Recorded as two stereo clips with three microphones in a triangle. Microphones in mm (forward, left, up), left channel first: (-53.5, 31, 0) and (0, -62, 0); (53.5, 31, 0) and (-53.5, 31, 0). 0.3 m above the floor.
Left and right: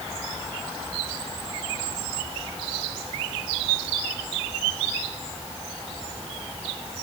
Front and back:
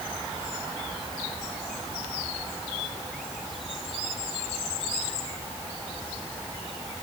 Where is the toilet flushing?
I don't hear a toilet flushing.